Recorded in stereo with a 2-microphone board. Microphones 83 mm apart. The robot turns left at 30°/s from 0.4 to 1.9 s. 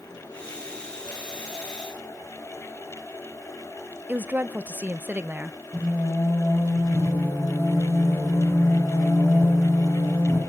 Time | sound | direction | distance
4.1 | a woman speaking | 20° right (ahead or behind) | 0.8 m
5.7 | singing | 40° left (ahead or behind) | 8.5 m